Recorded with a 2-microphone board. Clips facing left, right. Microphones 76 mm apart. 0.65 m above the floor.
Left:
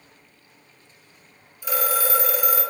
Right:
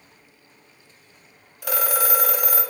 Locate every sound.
1.6 s a phone ringing: 70° right (ahead or behind), 0.7 m